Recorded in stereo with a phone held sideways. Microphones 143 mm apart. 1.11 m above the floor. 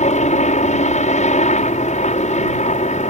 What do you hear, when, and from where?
0.0 s a helicopter: 60° left (ahead or behind)